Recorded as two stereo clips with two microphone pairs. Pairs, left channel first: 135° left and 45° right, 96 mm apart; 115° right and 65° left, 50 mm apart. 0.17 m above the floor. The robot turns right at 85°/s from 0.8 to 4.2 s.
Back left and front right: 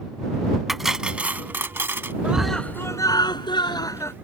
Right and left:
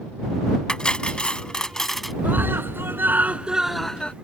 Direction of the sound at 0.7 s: 140° right.